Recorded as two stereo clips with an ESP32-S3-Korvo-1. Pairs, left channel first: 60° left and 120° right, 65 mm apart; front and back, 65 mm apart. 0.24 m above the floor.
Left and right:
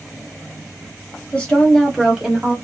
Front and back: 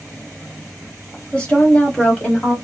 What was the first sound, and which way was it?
A woman speaking, 35° left.